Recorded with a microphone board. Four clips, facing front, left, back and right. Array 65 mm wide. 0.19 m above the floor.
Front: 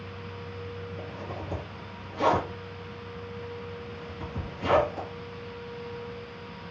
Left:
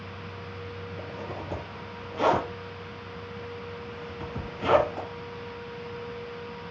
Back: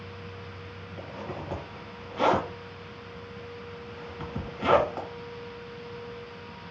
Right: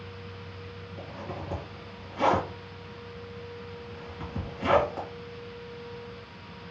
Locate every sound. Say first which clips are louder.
1.0 s a zipper: even, even; 175° left, 1.8 m